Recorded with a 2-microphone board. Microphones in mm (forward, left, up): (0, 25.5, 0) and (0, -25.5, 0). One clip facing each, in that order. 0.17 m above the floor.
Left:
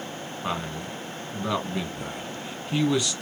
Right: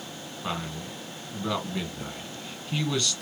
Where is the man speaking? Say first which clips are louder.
Left 2 dB; 15° left (ahead or behind), 1.5 m.